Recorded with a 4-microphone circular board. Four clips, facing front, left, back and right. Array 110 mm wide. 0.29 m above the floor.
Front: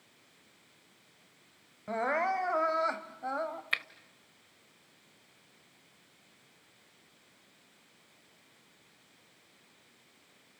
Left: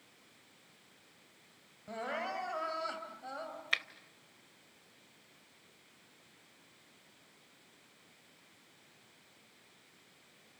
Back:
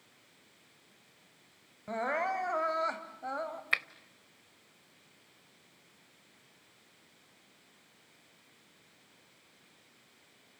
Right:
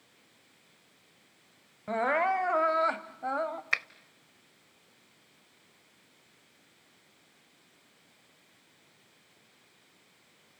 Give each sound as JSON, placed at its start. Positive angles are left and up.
{"t": 1.9, "sound": "crying", "azimuth_deg": -80, "distance_m": 1.4}
{"t": 3.7, "sound": "a finger snap", "azimuth_deg": -120, "distance_m": 0.9}